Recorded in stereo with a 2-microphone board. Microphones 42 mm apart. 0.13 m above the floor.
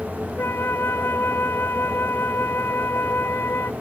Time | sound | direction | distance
0.4 | a flute | 65° left (ahead or behind) | ?